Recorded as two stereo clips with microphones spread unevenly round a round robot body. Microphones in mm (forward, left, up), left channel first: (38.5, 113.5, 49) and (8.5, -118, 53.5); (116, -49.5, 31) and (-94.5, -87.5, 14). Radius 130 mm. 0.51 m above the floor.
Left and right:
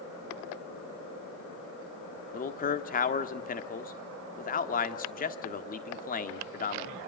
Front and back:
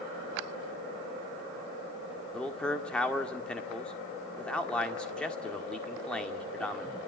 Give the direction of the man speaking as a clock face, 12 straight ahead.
9 o'clock.